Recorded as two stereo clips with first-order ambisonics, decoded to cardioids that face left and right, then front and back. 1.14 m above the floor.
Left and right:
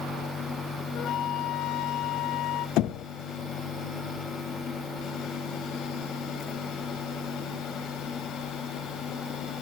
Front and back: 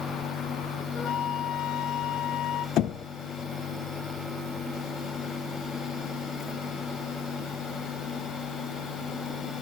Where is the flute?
40° left, 1.1 m.